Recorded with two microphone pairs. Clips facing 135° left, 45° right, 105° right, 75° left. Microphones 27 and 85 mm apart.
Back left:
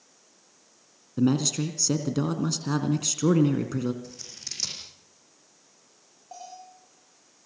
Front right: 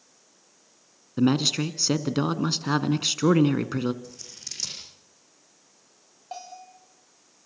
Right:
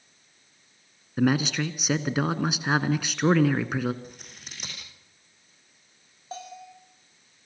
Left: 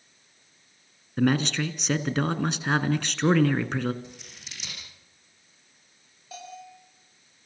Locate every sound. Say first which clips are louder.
1.2 s a man speaking: front right 2 dB, even; 25° right, 1.5 m
4.0 s scissors: back left 1 dB, right 1 dB; 145° right, 8.5 m
6.3 s a bell: front right 3 dB, right 2 dB; 55° right, 8.5 m